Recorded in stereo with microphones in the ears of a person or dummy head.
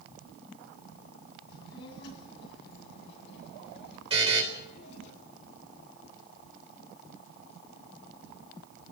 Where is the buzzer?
30° right (ahead or behind), 4.5 m.